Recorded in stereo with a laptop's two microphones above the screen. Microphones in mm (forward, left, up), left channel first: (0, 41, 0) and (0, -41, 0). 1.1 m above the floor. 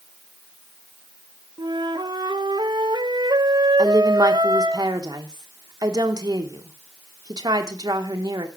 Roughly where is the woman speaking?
Right.